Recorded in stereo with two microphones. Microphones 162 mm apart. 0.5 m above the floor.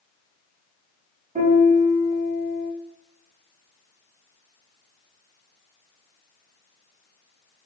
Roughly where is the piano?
Right.